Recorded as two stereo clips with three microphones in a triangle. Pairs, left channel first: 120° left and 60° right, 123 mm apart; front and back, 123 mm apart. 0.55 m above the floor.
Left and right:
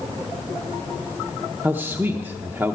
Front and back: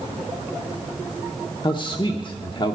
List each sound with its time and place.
1.6 s a man speaking: 5° left, 0.9 m